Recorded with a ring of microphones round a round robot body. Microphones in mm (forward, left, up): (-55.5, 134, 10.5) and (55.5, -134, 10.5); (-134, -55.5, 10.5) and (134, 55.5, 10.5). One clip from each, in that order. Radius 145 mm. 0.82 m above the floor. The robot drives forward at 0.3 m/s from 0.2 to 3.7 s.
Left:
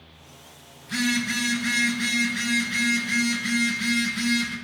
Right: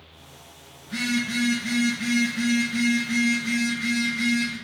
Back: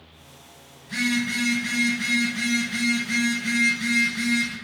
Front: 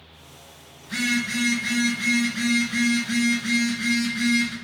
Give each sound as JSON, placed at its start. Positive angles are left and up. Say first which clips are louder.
{"t": 0.8, "sound": "a phone buzzing", "louder": "left 2 dB, even", "azimuth_deg": 105, "distance_m": 1.3}